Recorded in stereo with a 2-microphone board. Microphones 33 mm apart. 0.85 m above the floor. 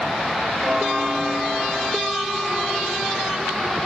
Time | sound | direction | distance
0.6 | a bell | 25° right (ahead or behind) | 1.8 m